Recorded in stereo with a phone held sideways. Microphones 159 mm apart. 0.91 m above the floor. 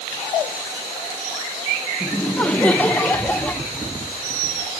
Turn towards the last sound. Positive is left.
turn(degrees=10)  # may be behind; listen again after turning